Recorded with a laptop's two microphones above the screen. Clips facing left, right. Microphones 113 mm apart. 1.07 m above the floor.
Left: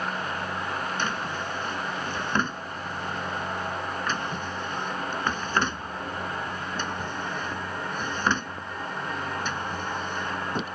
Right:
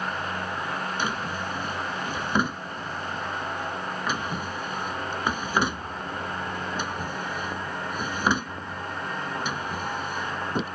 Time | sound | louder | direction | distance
1.0 | a drawer | right 1 dB | 10° right (ahead or behind) | ?